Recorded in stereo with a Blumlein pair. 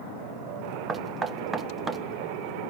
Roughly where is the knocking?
Ahead.